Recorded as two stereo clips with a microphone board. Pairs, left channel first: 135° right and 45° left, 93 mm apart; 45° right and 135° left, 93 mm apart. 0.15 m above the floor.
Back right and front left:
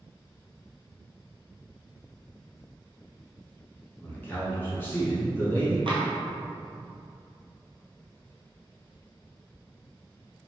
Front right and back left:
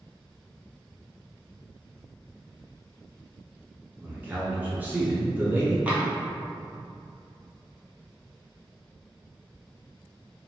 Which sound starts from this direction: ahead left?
Tapping, at 5.9 s.